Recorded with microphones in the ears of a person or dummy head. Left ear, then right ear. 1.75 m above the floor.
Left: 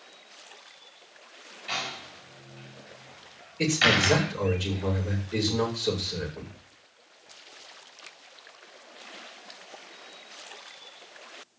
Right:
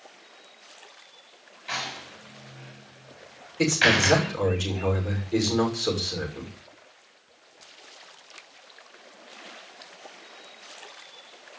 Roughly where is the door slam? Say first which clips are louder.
Right 1 dB; centre.